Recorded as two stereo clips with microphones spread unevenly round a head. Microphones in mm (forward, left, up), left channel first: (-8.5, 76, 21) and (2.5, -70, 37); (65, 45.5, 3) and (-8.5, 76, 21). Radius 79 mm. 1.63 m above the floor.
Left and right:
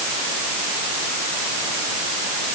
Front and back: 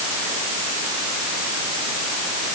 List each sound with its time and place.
Only background noise.